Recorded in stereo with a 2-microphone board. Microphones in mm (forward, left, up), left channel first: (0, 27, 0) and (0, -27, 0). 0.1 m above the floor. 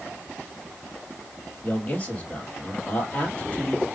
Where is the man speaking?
25° left (ahead or behind), 2.5 m.